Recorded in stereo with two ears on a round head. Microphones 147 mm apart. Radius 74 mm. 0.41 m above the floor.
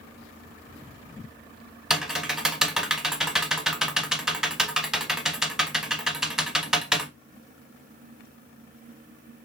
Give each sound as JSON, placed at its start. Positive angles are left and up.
{"t": 1.9, "sound": "typing on a keyboard", "side_deg": -5, "distance_m": 0.5}